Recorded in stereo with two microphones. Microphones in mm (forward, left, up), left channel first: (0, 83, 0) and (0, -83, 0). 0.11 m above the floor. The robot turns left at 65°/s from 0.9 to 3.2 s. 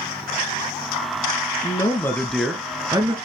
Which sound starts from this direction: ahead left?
A man speaking, at 1.6 s.